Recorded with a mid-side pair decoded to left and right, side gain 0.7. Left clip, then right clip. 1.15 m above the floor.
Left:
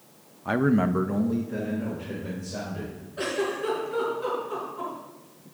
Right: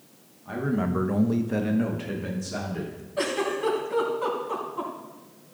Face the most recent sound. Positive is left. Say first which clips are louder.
# right 2 dB
turn(degrees=-65)